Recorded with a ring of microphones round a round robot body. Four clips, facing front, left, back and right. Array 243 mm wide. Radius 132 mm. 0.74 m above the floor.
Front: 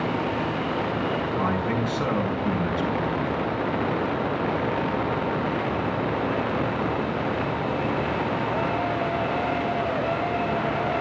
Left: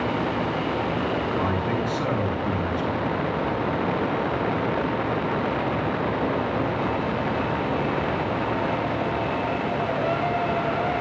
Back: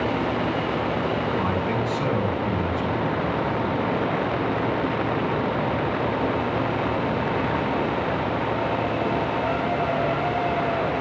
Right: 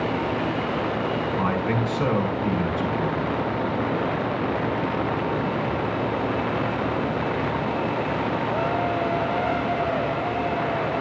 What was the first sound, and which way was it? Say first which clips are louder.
A man speaking: right 1 dB, back 1 dB; 100° right.